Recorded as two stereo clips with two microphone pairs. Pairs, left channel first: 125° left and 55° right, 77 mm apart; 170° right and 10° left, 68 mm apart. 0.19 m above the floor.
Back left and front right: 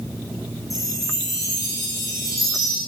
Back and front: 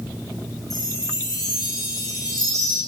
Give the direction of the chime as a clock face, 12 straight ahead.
6 o'clock.